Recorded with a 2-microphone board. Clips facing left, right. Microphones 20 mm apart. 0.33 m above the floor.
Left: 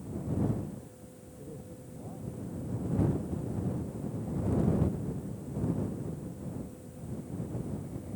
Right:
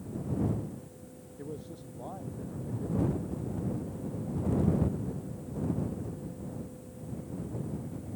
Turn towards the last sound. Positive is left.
turn(degrees=-80)